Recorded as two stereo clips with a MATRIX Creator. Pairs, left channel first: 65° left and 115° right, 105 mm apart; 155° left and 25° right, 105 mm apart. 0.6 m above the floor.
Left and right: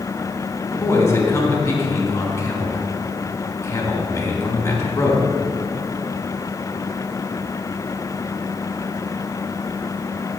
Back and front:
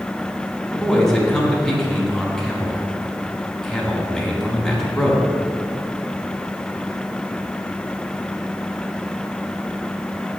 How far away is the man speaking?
About 1.3 m.